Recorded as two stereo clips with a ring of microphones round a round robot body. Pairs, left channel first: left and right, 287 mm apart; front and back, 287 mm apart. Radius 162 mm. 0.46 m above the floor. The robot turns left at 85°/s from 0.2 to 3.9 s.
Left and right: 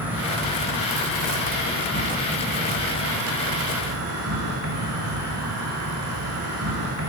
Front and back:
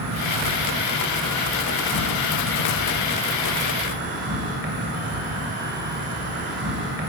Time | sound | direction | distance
0.0 | an insect | 175° right | 1.0 m